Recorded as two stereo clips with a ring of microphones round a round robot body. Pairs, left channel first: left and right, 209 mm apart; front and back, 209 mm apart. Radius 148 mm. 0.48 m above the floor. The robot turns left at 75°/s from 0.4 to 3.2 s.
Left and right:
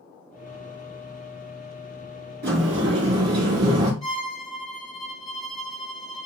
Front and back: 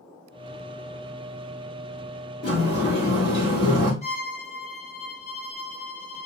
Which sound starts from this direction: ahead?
A violin, at 4.0 s.